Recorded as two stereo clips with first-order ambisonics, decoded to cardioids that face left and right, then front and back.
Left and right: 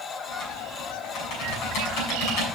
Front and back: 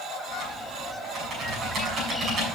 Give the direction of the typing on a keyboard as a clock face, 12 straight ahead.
8 o'clock.